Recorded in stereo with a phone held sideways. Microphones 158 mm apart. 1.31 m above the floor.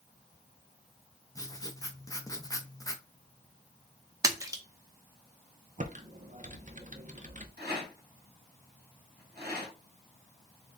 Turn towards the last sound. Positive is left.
turn(degrees=-75)  # may be behind; listen again after turning